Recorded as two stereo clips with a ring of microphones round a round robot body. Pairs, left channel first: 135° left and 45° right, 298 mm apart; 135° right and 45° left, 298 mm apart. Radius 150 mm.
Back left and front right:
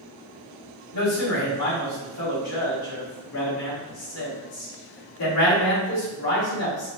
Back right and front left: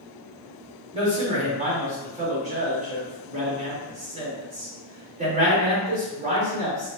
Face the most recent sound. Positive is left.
turn(degrees=110)